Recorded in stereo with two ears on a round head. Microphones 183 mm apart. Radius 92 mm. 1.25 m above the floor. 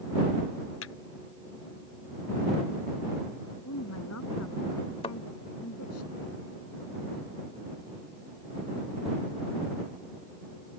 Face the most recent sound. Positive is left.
turn(degrees=30)  # may be behind; listen again after turning